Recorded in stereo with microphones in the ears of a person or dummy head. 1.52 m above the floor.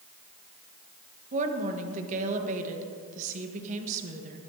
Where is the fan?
No fan in this recording.